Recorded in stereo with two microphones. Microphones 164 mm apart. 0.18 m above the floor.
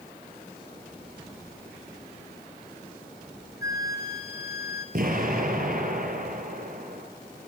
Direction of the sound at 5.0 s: 55° right (ahead or behind).